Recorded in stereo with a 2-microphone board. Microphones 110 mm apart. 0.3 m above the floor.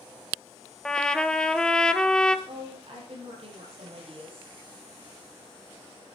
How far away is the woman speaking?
About 8.5 m.